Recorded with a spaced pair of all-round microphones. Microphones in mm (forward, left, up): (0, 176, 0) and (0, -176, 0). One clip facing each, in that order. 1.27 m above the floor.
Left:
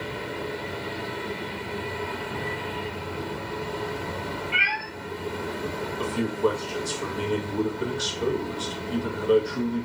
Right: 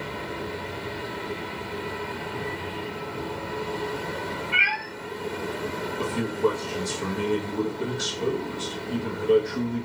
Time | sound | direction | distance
4.5 | a cat meowing | 60° right (ahead or behind) | 1.3 m
6.0 | a man speaking | 30° right (ahead or behind) | 1.1 m